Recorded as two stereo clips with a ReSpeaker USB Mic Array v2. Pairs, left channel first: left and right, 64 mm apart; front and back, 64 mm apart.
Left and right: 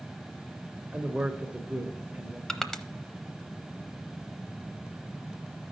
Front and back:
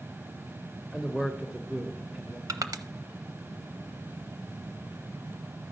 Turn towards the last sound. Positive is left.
turn(degrees=170)